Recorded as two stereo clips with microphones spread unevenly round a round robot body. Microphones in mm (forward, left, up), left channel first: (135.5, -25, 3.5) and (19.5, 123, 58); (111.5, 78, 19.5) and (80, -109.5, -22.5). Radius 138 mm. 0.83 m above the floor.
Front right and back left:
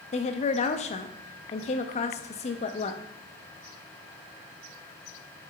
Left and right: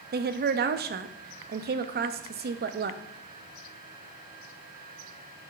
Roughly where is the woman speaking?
Right.